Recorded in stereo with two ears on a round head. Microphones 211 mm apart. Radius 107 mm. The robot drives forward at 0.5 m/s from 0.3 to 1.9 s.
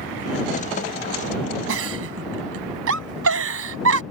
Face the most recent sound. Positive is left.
turn(degrees=-60)  # may be behind; listen again after turning